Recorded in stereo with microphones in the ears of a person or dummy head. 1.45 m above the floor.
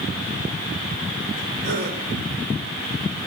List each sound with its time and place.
1.6 s a gasp: 60° right (ahead or behind), 3.5 m